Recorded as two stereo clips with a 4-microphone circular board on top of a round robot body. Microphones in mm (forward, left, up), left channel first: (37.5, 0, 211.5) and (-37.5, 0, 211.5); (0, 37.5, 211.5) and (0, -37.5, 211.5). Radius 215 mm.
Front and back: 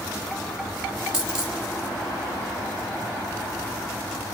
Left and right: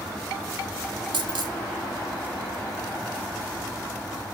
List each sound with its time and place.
1.1 s a dropped coin: 100° right, 1.5 m